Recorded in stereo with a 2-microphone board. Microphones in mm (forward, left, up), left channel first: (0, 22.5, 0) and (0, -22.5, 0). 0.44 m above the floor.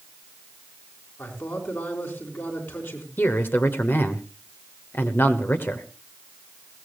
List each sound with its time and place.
1.2 s a man speaking: 60° left (ahead or behind), 4.5 m
3.2 s a man speaking: 50° left (ahead or behind), 1.4 m